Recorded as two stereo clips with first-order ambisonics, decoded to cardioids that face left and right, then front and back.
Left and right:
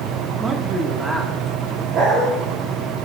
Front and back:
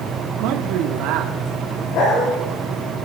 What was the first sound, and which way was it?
A man speaking, 165° right.